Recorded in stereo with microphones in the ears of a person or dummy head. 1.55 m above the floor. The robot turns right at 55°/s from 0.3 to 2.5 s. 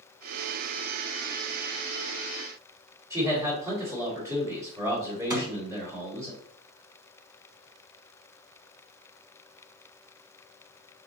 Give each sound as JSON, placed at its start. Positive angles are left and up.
{"t": 3.1, "sound": "a man speaking", "side_deg": -20, "distance_m": 2.0}
{"t": 5.3, "sound": "a thud", "side_deg": -20, "distance_m": 2.5}